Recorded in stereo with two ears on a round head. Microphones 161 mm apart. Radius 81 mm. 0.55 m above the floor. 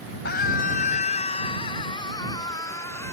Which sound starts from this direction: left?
A scream, at 0.2 s.